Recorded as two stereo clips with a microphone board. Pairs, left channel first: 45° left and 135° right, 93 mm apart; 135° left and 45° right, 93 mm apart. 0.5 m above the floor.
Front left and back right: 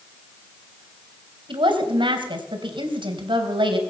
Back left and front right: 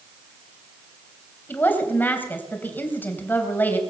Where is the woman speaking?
155° right, 3 m.